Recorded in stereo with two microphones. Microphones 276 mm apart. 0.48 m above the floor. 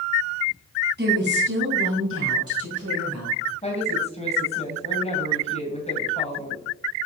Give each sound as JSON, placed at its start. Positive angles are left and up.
{"t": 1.0, "sound": "a woman speaking", "side_deg": -35, "distance_m": 3.5}
{"t": 3.6, "sound": "a woman speaking", "side_deg": 25, "distance_m": 2.5}